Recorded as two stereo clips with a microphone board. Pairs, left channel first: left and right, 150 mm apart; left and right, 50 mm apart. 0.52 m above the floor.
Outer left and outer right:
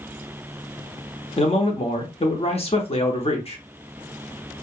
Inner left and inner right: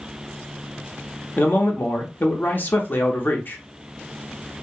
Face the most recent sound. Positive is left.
turn(degrees=40)  # may be behind; listen again after turning